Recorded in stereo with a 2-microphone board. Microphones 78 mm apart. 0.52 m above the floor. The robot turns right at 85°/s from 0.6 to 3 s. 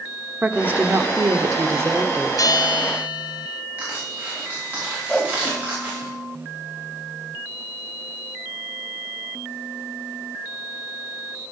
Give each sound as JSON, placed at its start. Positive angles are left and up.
{"t": 0.4, "sound": "a woman speaking", "azimuth_deg": -155, "distance_m": 1.1}
{"t": 2.4, "sound": "a bell", "azimuth_deg": 50, "distance_m": 1.1}
{"t": 3.8, "sound": "crushing", "side_deg": -25, "distance_m": 9.5}
{"t": 5.1, "sound": "a whoosh", "side_deg": 15, "distance_m": 2.0}